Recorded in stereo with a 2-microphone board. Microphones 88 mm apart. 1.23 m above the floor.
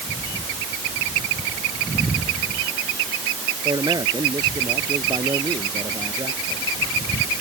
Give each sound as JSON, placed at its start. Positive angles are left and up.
{"t": 3.6, "sound": "a man speaking", "side_deg": -50}